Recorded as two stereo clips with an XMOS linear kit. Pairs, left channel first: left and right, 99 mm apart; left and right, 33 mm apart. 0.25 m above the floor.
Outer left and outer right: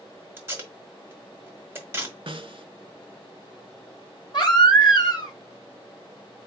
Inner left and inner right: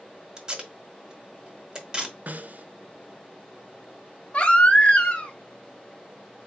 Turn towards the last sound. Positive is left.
turn(degrees=45)  # may be behind; listen again after turning